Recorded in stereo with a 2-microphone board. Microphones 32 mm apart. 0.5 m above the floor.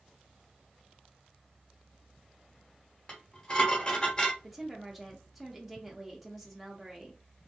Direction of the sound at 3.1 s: 30° left (ahead or behind).